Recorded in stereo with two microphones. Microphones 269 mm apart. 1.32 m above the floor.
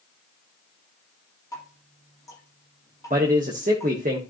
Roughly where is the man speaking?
Right.